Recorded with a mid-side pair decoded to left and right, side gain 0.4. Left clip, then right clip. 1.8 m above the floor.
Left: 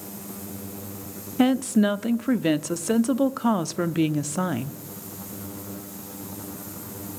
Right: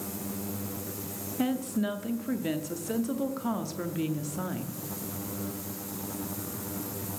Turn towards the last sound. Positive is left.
turn(degrees=70)